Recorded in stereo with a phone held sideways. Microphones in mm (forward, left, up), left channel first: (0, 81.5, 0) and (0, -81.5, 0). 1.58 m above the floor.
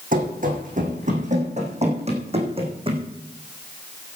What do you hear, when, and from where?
0.1 s running footsteps: 55° right (ahead or behind), 5 m; by 3.0 s 30° right (ahead or behind), 4.5 m